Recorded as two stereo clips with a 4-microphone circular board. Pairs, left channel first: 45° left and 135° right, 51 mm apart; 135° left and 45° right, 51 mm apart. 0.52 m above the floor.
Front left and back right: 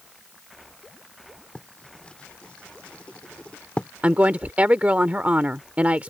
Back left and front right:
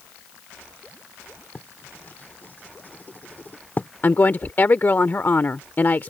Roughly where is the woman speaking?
Behind.